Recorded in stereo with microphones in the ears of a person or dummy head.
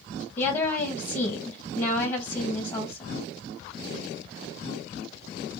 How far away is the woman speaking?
About 1.9 m.